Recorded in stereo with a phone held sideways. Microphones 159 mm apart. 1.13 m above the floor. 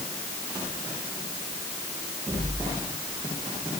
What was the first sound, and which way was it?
Only background noise.